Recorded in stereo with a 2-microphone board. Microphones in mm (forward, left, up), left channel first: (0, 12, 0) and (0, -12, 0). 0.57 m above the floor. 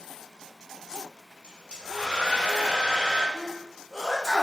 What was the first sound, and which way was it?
A hair dryer, 60° right (ahead or behind).